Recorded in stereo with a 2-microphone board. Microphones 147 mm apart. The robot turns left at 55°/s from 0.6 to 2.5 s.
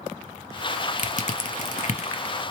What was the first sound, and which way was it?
Crushing, 55° left (ahead or behind).